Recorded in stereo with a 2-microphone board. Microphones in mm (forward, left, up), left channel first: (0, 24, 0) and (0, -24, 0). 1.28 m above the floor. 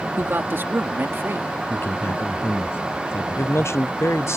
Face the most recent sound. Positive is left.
turn(degrees=70)  # may be behind; listen again after turning